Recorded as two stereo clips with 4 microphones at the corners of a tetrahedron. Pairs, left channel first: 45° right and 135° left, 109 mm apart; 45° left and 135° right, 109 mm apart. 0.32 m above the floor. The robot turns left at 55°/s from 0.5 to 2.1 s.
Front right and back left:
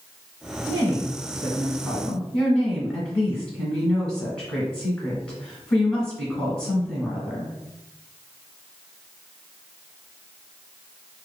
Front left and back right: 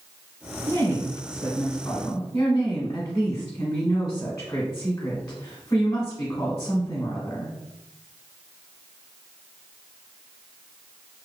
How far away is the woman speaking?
About 1.0 m.